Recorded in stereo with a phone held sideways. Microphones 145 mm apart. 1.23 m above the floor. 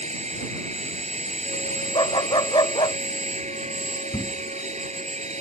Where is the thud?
35° left (ahead or behind).